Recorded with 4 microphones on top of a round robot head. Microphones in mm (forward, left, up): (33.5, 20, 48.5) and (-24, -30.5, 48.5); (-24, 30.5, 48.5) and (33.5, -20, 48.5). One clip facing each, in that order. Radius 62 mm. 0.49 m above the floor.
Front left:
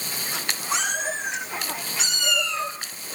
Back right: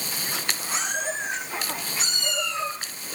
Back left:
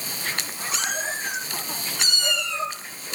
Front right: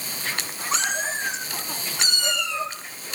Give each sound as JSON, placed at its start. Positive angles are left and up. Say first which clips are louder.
{"t": 0.7, "sound": "a cat meowing", "louder": "front left 3 dB, front right 3 dB", "azimuth_deg": 20, "distance_m": 7.5}